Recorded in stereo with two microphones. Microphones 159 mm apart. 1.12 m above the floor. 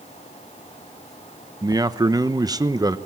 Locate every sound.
1.6 s a man speaking: 25° right (ahead or behind), 0.9 m